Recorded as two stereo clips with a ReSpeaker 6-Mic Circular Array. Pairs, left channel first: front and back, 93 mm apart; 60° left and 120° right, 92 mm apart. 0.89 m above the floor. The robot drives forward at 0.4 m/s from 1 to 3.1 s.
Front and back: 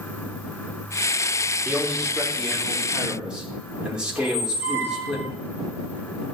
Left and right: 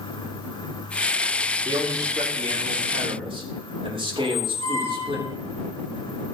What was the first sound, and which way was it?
A man speaking, 90° right.